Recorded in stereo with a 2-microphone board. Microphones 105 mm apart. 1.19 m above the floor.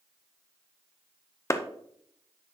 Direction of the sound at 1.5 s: 30° left (ahead or behind).